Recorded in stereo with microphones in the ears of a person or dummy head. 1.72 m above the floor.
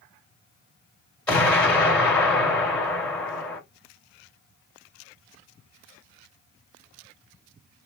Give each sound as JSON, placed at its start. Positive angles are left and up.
{"t": 1.3, "sound": "an explosion", "side_deg": 10, "distance_m": 2.0}